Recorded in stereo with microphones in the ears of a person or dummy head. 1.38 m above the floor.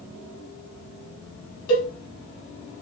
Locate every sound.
1.7 s a cowbell: 80° left, 1.0 m